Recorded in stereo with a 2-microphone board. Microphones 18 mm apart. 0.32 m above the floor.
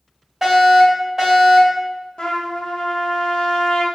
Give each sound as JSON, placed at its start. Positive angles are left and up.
{"t": 0.4, "sound": "a fire alarm", "side_deg": -15, "distance_m": 1.8}
{"t": 2.2, "sound": "a trumpet", "side_deg": 60, "distance_m": 0.5}